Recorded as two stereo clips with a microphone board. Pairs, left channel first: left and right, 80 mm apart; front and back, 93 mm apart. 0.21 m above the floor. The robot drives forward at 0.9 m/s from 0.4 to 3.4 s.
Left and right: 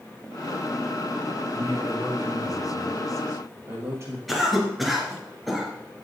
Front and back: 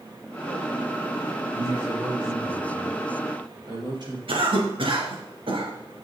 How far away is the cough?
About 2.5 m.